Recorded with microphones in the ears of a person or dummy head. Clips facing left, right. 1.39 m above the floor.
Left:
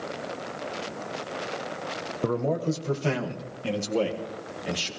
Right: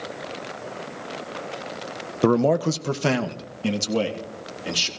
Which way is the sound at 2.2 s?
85° right.